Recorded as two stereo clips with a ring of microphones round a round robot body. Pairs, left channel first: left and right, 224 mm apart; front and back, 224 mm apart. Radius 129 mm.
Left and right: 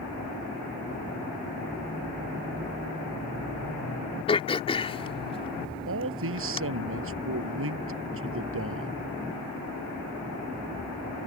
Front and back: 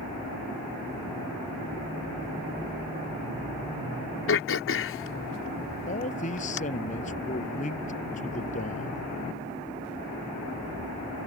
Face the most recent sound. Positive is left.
turn(degrees=-65)